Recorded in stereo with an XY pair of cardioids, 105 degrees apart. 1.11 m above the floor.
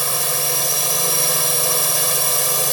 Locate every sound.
0.0 s a drone: 5° right